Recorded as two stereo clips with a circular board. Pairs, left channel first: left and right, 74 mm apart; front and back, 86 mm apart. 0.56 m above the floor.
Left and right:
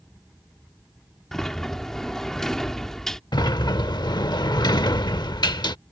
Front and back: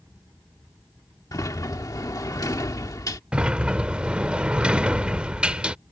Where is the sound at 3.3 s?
105° left.